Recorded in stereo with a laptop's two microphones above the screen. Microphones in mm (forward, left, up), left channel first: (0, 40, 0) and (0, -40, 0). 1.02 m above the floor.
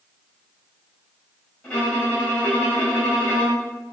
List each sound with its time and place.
1.6 s a violin: 15° left (ahead or behind), 3.5 m